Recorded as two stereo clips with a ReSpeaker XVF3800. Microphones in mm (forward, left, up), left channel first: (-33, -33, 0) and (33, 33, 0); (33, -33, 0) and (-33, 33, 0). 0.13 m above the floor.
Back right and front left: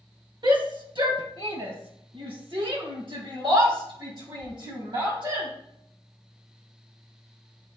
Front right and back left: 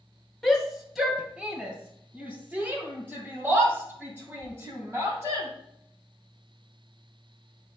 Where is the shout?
40° left, 2 m; by 5.5 s 75° left, 5.5 m.